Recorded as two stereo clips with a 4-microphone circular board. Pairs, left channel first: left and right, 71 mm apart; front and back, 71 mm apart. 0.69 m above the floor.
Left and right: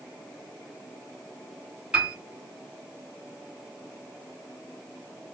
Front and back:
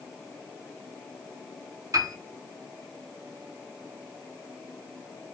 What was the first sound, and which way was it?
A piano, 160° right.